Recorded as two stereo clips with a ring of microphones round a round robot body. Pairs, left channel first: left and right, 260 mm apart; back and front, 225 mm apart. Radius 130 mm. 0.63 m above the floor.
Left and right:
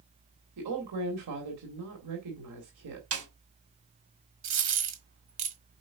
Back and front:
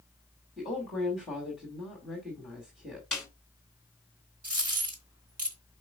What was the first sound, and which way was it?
A woman speaking, 90° right.